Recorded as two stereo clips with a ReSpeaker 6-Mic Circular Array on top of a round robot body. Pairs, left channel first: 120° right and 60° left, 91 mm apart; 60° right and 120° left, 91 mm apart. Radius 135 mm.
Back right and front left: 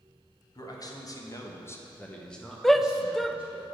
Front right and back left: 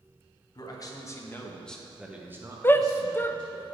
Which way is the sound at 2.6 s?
35° right.